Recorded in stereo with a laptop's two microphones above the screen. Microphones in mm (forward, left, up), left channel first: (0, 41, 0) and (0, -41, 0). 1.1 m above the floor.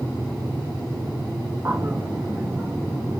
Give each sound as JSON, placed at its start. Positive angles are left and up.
{"t": 1.6, "sound": "a bird", "side_deg": -35, "distance_m": 0.8}